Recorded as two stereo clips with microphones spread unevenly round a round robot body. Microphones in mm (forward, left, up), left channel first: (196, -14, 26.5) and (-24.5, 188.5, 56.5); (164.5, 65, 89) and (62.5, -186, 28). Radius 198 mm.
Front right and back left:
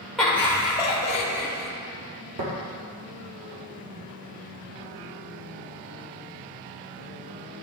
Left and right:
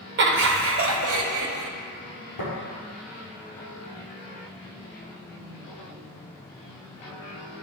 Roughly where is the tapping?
Left.